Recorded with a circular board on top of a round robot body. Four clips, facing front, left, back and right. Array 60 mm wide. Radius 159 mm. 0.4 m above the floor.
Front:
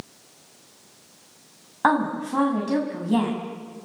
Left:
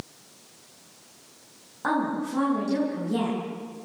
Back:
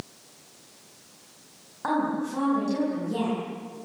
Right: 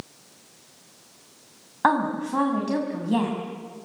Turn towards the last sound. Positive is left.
turn(degrees=-45)